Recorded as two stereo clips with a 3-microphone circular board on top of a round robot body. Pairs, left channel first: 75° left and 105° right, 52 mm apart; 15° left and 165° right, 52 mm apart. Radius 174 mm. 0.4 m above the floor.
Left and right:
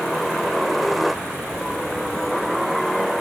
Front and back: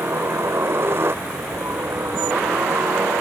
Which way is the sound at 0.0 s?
165° left.